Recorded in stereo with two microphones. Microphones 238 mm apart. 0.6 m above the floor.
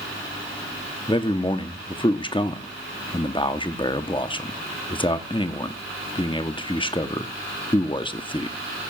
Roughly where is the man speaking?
Left.